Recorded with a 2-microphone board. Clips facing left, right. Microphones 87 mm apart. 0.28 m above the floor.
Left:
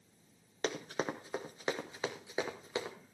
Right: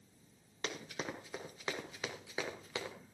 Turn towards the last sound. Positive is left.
turn(degrees=25)  # may be behind; listen again after turning